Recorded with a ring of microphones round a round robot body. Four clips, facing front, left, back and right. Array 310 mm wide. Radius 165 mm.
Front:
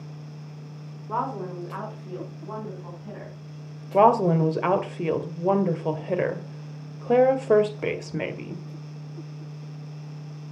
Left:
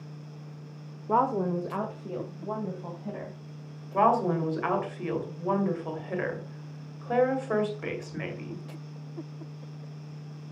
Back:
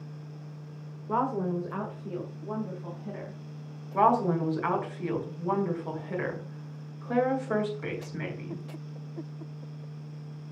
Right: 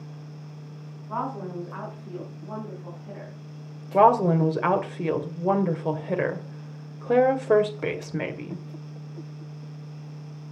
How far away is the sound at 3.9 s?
About 2 m.